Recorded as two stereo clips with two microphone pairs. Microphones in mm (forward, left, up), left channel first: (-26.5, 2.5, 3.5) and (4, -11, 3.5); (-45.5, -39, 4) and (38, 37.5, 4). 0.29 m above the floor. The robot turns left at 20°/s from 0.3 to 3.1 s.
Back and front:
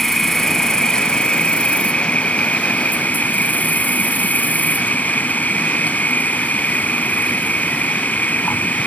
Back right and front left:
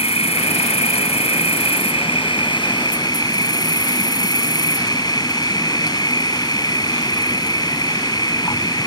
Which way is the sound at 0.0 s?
130° right.